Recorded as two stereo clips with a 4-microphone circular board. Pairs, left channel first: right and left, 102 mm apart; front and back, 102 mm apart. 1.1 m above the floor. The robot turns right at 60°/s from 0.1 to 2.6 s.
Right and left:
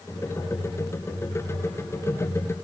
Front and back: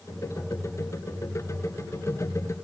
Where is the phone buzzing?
I don't hear a phone buzzing.